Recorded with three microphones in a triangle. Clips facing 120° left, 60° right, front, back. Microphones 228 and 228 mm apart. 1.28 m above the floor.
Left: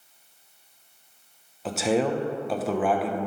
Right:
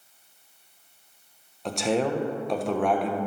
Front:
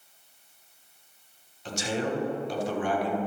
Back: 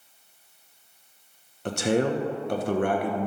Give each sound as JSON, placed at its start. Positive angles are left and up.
{"t": 1.6, "sound": "a man speaking", "azimuth_deg": -155, "distance_m": 1.1}